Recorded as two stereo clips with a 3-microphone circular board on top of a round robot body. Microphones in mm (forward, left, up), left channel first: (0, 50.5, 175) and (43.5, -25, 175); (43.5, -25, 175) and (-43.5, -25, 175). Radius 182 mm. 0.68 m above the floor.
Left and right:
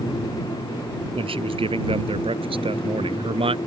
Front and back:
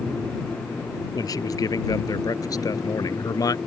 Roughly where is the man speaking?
Ahead right.